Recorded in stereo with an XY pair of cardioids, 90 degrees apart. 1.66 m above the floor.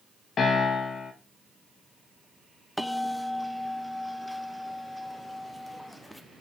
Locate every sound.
0.4 s a piano: 55° left, 1.7 m
2.8 s a bell: 5° left, 0.9 m